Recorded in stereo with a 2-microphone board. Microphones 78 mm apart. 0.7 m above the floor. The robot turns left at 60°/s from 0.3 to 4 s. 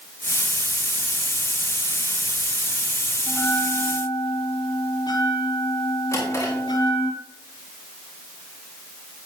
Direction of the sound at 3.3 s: 135° left.